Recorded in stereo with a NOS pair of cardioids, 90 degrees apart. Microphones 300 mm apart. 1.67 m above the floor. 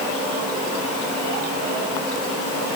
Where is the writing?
No writing in this recording.